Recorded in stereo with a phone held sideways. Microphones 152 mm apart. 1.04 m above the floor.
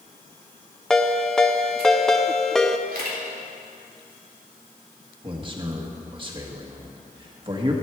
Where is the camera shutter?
70° right (ahead or behind), 2.5 m.